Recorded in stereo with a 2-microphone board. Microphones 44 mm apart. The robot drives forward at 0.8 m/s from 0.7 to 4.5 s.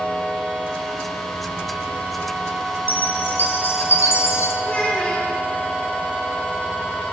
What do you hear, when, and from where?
2.9 s a chime: 45° left (ahead or behind), 1.7 m; by 4.5 s 85° left, 1.2 m
4.6 s a child speaking: 35° left (ahead or behind), 1.7 m